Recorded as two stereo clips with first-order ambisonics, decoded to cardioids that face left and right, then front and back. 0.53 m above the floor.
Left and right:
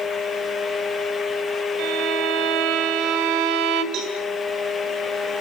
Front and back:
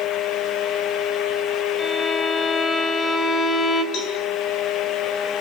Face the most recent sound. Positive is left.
turn(degrees=-45)